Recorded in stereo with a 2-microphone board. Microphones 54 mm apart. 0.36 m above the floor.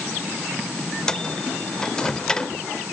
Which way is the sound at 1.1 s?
15° left (ahead or behind).